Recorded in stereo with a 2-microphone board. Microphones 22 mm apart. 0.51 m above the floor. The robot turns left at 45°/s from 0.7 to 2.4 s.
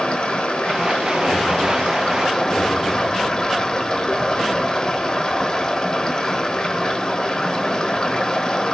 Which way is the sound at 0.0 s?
115° left.